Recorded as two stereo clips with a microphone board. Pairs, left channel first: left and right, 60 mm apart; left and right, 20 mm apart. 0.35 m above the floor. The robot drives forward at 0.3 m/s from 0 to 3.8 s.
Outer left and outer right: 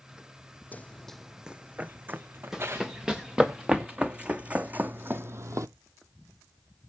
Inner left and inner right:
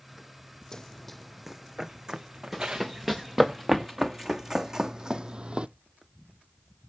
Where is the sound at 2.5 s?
10° right (ahead or behind), 2.5 m; by 5.7 s 65° right (ahead or behind), 0.6 m.